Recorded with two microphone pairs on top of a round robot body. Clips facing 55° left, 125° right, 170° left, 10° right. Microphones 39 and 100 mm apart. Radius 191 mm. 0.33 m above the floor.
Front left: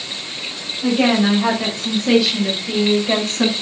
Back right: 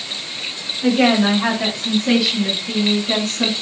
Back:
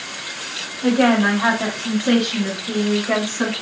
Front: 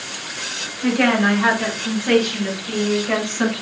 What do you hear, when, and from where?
0.8 s a woman speaking: 140° right, 1.9 m; by 3.5 s 90° left, 1.6 m